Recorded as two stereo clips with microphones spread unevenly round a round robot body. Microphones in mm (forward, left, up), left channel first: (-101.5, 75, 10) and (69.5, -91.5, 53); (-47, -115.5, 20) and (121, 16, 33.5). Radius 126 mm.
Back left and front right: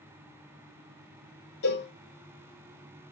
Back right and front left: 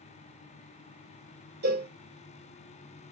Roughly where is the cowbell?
Left.